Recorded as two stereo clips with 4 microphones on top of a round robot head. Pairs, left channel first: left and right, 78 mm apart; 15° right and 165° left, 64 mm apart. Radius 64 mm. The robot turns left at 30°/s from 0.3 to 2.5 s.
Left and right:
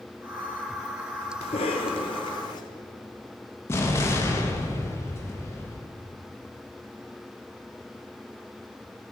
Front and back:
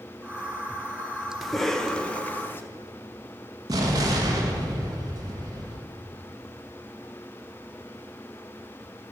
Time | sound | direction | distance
1.4 | a cough | 75° left | 1.0 m
3.7 | an explosion | 145° left | 1.2 m